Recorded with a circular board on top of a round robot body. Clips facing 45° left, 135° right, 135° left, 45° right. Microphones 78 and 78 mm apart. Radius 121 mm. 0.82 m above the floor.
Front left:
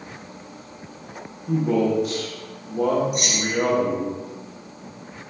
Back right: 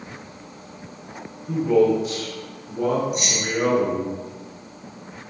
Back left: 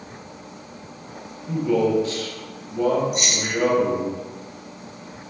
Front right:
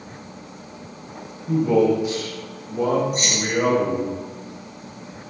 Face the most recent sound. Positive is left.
turn(degrees=10)